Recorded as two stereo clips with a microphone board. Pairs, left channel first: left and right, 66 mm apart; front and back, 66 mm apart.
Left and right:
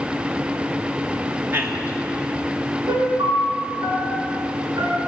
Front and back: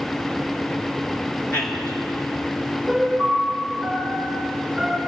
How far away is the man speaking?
About 2.5 m.